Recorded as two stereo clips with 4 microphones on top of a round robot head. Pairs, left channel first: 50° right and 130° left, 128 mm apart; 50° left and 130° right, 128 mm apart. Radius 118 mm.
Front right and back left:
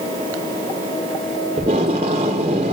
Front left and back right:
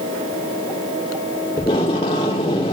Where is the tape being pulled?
90° left, 0.5 m.